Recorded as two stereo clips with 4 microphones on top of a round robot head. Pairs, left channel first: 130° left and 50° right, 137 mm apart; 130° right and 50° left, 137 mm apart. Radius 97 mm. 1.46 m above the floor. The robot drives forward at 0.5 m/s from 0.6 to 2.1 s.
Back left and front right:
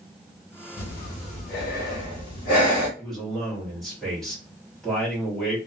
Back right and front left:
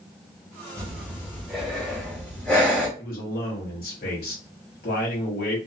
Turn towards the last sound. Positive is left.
turn(degrees=-140)